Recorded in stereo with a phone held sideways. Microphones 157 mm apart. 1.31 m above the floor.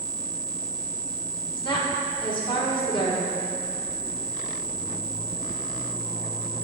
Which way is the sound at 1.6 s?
30° left (ahead or behind).